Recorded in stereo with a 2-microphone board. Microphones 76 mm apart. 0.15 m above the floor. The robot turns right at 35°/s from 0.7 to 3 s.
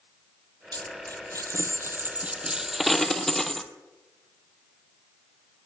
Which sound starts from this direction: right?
A dropped coin, at 0.7 s.